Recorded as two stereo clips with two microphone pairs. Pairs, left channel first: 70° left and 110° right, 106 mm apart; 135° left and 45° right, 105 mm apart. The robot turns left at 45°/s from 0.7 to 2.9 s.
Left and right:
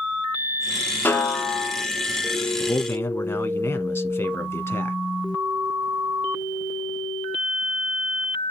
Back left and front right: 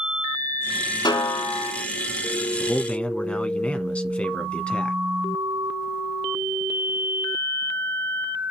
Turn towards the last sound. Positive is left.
turn(degrees=75)